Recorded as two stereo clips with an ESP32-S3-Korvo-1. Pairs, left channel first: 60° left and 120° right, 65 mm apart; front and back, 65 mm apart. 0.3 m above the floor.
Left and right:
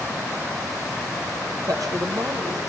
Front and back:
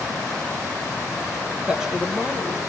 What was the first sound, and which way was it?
A woman speaking, 105° right.